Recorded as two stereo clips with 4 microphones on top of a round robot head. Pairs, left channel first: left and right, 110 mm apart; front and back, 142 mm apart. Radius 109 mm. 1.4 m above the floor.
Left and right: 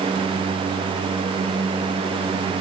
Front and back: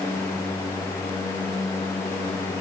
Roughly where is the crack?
No crack in this recording.